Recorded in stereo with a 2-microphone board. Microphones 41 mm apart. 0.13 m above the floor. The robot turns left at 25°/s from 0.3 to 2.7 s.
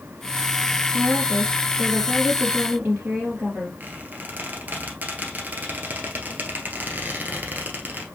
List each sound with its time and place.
0.9 s a woman speaking: 10° right, 3.5 m; by 3.7 s 55° right, 3.5 m
3.8 s a squeak: 45° right (ahead or behind), 1.4 m